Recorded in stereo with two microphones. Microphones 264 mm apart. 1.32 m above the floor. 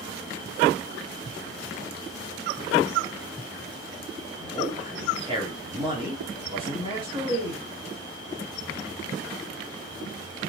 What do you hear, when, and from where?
4.4 s a man speaking: 20° right (ahead or behind), 3.5 m